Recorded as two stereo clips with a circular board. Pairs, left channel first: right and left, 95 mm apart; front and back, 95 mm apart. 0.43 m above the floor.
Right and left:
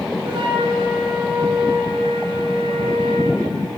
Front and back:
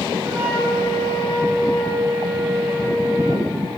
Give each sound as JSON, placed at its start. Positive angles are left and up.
{"t": 0.2, "sound": "a flute", "azimuth_deg": 120, "distance_m": 5.5}